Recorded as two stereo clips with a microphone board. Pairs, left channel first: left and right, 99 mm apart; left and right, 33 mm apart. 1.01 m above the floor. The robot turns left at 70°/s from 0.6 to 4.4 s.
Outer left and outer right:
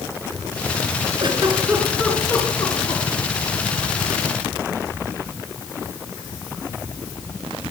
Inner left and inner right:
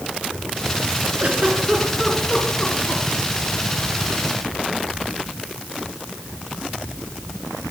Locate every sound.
1.2 s a giggle: 50° right (ahead or behind), 3 m; by 3.0 s 70° left (ahead or behind), 3 m